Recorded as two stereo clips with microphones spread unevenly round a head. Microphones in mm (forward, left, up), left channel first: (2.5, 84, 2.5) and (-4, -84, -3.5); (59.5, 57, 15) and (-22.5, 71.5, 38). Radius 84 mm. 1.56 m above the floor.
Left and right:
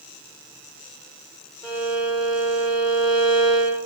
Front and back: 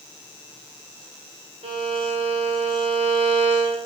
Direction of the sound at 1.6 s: 160° left.